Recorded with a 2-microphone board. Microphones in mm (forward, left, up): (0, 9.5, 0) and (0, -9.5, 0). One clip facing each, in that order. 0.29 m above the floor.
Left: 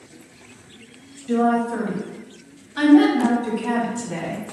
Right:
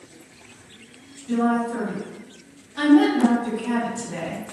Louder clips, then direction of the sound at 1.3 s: Left 2 dB; 40° left (ahead or behind).